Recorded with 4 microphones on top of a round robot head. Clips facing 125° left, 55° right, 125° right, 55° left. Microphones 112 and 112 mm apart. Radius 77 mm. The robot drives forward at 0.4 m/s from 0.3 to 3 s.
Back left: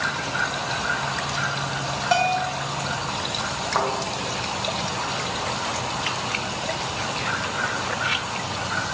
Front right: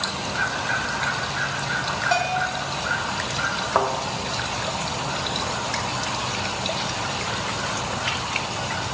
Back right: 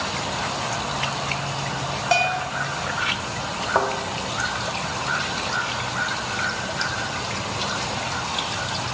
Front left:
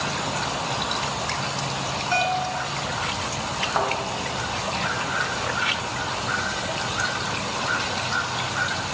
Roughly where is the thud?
Behind right.